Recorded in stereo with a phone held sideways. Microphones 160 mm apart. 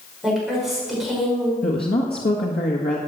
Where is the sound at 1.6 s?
80° left, 1.7 m.